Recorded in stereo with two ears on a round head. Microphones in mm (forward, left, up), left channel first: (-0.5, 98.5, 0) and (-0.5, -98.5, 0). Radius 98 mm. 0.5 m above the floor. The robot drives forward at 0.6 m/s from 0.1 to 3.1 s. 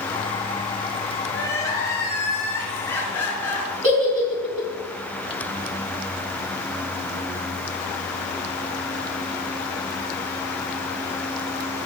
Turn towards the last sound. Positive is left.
turn(degrees=-35)  # may be behind; listen again after turning